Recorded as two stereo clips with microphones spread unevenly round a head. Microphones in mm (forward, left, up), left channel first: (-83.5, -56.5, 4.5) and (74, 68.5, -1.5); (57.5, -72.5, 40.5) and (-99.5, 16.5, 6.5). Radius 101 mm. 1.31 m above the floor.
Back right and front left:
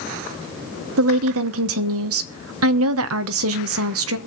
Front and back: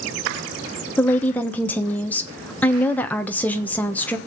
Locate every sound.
1.0 s a woman speaking: 55° left, 1.1 m